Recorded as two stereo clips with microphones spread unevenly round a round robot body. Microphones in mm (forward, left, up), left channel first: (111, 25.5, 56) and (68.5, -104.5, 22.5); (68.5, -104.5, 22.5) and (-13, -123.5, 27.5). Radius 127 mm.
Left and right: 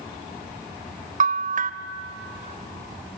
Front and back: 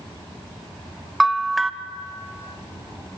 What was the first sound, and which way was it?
A bell, 80° right.